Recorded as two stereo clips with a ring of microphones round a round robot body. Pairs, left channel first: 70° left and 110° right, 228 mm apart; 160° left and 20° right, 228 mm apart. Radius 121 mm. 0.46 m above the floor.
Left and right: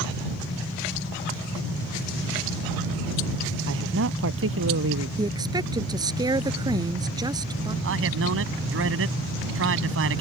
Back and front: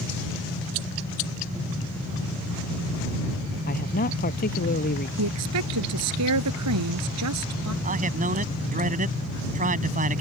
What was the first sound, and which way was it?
A man speaking, 150° right.